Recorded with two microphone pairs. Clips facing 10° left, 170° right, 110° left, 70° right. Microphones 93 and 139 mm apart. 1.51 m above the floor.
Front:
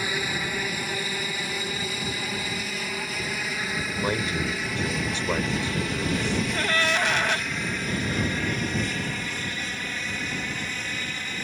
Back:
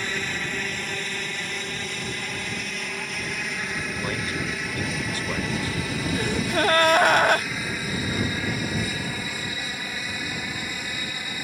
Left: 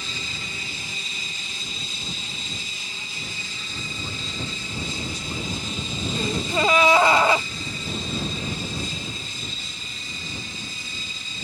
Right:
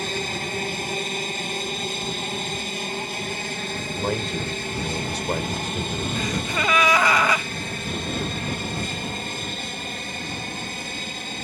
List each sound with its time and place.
0.0 s an aircraft: 70° right; by 11.4 s 90° right
4.0 s a man speaking: 55° right
6.2 s a gasp: 165° left